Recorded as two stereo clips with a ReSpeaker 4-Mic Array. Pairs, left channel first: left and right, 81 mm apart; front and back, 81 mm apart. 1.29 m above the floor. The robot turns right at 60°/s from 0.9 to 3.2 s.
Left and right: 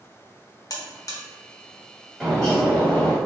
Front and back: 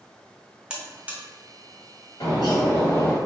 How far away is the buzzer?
About 0.8 m.